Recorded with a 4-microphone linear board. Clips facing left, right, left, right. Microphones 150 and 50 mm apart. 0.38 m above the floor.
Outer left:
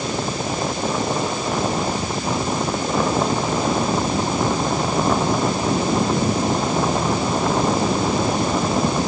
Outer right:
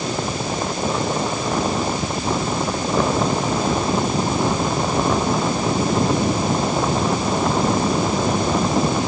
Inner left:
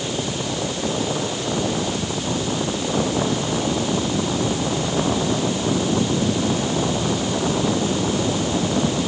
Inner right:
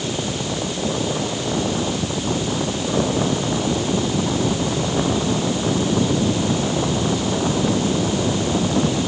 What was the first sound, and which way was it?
Only background noise.